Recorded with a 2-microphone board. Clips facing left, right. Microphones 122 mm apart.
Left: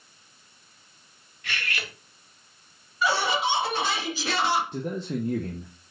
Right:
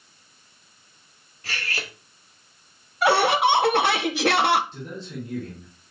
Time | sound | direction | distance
1.4 | cutlery clinking | 35° right (ahead or behind) | 0.9 m
3.0 | laughter | 75° right (ahead or behind) | 0.6 m
4.7 | a man speaking | 60° left (ahead or behind) | 0.8 m